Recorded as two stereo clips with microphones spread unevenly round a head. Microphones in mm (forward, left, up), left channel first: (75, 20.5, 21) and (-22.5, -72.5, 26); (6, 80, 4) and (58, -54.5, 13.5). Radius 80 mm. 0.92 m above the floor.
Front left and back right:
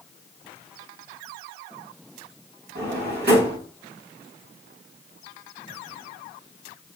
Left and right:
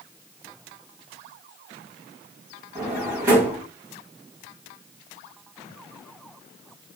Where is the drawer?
140° right, 2.5 m.